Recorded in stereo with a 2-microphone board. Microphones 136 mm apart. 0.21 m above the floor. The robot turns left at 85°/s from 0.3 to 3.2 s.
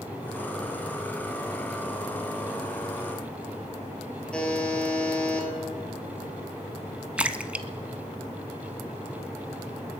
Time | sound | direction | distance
4.3 | a buzzer | 5° left (ahead or behind) | 2.5 m
7.2 | a splash | 10° right (ahead or behind) | 0.6 m